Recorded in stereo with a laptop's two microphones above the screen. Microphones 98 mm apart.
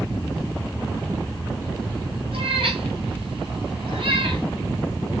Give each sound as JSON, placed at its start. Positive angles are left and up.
{"t": 2.3, "sound": "a cat meowing", "side_deg": -70, "distance_m": 4.0}